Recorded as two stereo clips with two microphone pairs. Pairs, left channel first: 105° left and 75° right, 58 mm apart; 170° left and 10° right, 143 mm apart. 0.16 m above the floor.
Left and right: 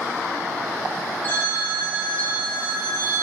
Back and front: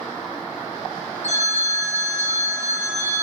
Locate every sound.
1.2 s a phone ringing: 160° left, 1.5 m